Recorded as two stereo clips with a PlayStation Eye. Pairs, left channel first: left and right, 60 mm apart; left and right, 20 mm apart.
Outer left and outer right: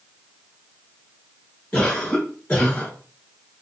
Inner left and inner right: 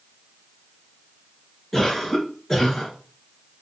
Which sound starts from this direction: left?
A cough, at 1.7 s.